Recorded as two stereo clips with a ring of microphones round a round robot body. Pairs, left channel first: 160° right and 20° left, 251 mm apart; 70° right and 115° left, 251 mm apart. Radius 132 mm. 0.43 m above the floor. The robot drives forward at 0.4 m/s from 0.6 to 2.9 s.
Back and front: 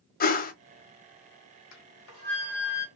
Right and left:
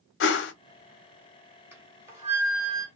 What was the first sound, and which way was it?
A whoosh, 105° right.